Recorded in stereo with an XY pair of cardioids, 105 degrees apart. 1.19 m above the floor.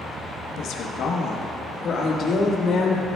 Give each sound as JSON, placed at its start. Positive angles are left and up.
{"t": 0.6, "sound": "a woman speaking", "azimuth_deg": 70, "distance_m": 0.8}